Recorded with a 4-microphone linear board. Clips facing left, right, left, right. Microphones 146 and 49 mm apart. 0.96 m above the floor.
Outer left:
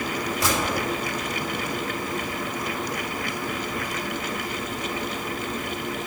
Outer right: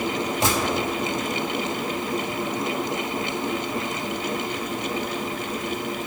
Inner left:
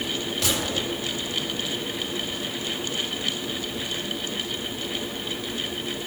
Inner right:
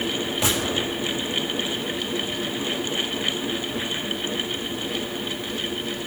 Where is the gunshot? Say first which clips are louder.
Outer right 2 dB, inner right 3 dB; 25° right (ahead or behind), 5.5 m.